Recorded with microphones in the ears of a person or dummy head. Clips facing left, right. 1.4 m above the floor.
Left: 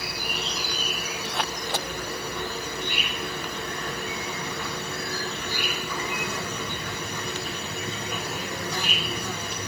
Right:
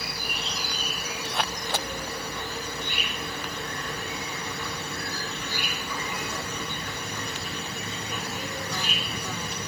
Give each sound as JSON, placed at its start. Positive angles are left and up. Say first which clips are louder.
{"t": 0.0, "sound": "an insect", "louder": "left 3 dB", "side_deg": 55, "distance_m": 2.0}